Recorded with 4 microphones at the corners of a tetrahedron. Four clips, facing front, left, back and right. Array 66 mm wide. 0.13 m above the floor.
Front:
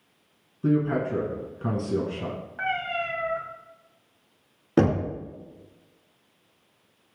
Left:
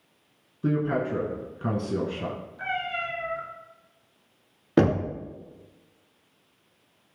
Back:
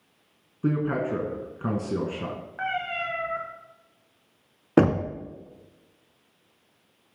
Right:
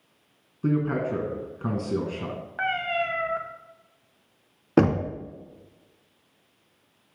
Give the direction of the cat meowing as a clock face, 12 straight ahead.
3 o'clock.